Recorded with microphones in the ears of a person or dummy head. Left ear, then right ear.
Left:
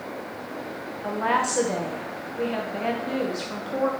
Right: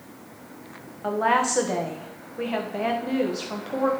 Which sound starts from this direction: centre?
A woman speaking, at 1.0 s.